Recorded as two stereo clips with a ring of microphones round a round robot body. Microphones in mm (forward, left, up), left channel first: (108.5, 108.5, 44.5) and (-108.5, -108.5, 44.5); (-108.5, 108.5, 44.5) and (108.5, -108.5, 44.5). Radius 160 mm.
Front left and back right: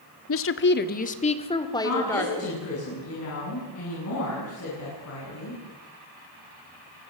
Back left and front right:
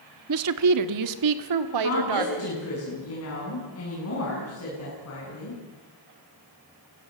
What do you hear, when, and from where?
0.3 s a woman speaking: straight ahead, 1.4 m; by 2.6 s 40° right, 2.5 m
1.8 s a woman speaking: 90° left, 9 m